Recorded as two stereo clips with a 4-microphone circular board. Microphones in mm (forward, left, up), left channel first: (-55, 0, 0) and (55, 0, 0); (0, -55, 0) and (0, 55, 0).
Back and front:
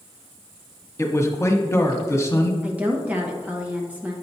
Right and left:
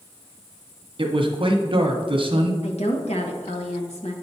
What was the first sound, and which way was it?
A man speaking, 120° left.